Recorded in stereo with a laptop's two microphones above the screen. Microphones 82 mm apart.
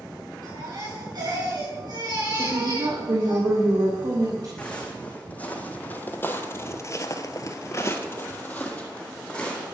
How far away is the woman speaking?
About 3 m.